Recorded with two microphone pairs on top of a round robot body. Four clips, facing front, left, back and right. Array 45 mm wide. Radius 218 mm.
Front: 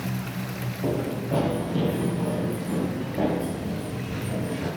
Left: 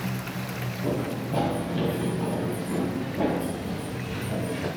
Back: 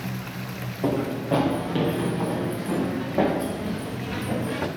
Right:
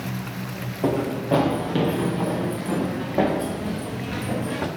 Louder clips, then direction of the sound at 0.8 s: Right 7 dB, back 3 dB; 115° right.